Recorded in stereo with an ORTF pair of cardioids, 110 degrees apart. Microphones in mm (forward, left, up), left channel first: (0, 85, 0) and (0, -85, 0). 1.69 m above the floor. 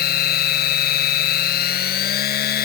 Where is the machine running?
65° left.